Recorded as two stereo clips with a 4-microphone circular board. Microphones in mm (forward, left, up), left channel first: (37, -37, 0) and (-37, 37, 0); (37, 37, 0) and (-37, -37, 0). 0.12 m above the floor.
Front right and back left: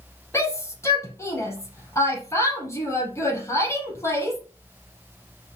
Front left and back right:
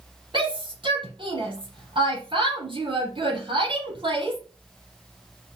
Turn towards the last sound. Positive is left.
turn(degrees=-105)